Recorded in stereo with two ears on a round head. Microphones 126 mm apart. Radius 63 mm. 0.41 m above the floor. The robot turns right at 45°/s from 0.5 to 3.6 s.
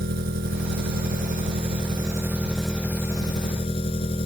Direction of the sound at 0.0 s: 95° right.